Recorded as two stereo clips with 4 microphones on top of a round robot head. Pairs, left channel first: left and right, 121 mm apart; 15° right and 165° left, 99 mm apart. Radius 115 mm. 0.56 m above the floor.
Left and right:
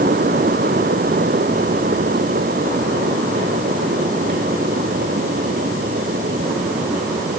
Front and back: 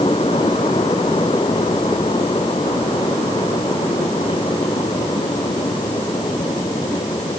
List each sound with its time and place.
Only background noise.